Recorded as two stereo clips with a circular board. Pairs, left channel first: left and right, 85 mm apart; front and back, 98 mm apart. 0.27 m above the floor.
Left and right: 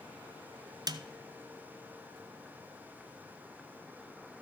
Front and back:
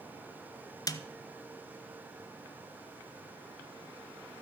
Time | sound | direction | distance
0.9 | a snare drum | 50° right | 0.5 m